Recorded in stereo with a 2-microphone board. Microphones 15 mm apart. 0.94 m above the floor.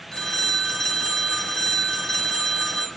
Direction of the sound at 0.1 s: 40° left (ahead or behind).